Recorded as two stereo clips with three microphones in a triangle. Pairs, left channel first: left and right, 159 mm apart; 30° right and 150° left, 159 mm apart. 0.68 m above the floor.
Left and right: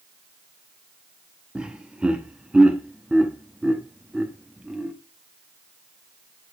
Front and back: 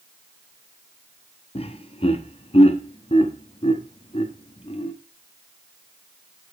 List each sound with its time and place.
1.6 s laughter: 10° right, 1.0 m